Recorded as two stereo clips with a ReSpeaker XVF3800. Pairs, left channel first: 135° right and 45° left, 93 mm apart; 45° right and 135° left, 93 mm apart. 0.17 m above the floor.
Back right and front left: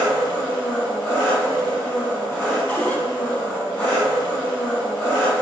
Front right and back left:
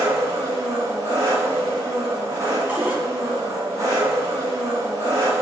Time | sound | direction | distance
0.0 | an engine running | 165° left | 1.6 m
2.7 | a cupboard door | straight behind | 0.7 m